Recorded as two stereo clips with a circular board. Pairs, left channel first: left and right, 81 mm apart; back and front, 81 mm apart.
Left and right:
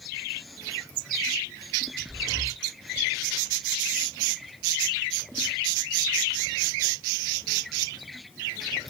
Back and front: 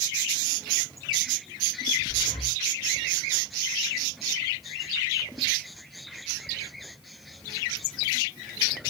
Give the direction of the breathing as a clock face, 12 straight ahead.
6 o'clock.